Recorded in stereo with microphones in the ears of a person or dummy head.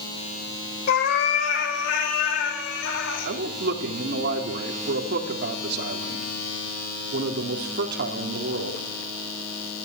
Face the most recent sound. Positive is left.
turn(degrees=-65)  # may be behind; listen again after turning